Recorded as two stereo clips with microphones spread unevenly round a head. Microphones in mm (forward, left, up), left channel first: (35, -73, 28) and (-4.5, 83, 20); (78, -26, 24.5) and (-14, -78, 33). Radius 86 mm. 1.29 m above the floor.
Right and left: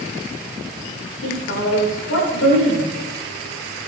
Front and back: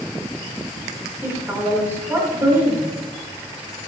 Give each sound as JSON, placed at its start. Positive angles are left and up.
{"t": 1.2, "sound": "a woman speaking", "azimuth_deg": -80, "distance_m": 5.0}